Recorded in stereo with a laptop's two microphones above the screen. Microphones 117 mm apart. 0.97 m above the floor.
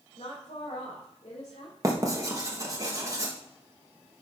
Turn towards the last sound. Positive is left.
turn(degrees=-30)  # may be behind; listen again after turning